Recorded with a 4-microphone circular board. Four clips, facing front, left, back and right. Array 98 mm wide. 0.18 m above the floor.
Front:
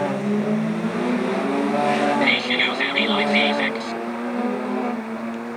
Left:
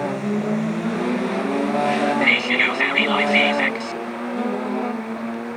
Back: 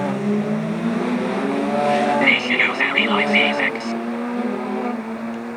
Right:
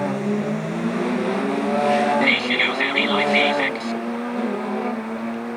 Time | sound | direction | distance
2.2 | whispering | 155° left | ?